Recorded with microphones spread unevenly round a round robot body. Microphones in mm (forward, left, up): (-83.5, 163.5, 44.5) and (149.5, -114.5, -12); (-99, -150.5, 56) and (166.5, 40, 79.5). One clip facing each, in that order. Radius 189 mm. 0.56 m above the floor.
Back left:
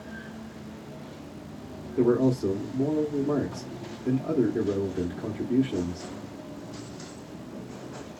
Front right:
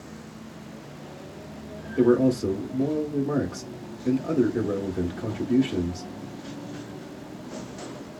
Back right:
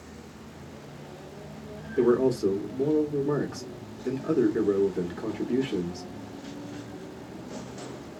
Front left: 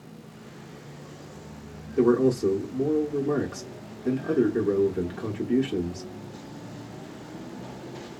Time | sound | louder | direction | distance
2.0 | a man speaking | front right 3 dB, front left 2 dB | 50° right | 0.8 m